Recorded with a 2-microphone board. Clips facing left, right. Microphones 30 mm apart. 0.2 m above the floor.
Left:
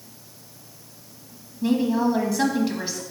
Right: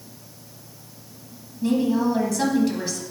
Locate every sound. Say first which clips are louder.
1.6 s a woman speaking: even; 15° left (ahead or behind), 1.1 m